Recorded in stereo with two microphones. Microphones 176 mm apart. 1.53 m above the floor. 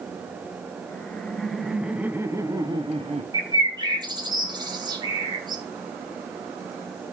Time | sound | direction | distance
0.9 | laughter | 10° left (ahead or behind) | 1.6 m
3.3 | a bird | 25° right (ahead or behind) | 2 m